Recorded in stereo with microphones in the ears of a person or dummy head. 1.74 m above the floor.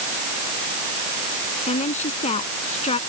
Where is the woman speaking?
35° left (ahead or behind).